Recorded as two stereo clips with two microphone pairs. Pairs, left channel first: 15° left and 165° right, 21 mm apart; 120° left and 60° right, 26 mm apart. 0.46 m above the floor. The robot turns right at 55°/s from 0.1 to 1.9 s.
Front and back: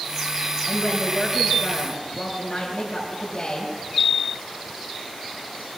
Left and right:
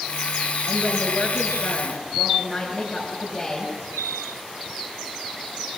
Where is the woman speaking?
Straight ahead, 6 m; by 3.7 s 70° left, 6 m.